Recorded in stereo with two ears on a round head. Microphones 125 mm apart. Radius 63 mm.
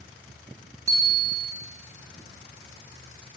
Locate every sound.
0.9 s a bicycle bell: 25° right (ahead or behind), 2.5 m